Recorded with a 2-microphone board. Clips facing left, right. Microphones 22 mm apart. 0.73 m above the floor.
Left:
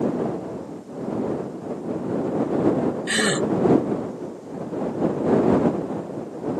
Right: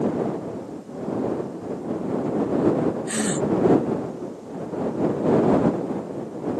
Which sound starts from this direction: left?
A gasp, at 3.1 s.